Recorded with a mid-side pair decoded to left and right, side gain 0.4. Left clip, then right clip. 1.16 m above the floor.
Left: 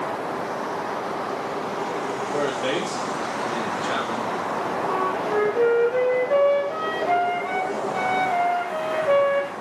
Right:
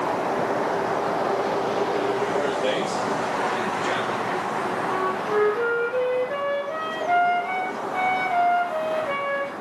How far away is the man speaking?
About 2.5 m.